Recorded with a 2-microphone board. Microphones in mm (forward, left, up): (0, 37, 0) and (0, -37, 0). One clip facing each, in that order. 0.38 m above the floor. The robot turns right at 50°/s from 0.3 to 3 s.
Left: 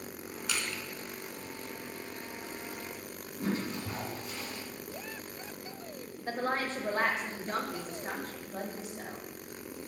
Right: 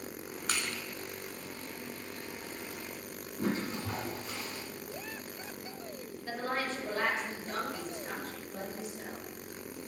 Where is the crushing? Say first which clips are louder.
Even; 45° right (ahead or behind), 1.0 m; by 0.8 s 60° right (ahead or behind), 1.0 m.